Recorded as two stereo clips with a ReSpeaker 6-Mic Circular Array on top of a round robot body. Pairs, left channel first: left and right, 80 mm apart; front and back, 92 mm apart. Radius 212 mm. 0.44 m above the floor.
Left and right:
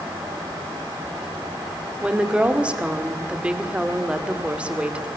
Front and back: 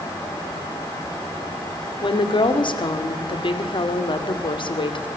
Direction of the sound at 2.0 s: 15° right.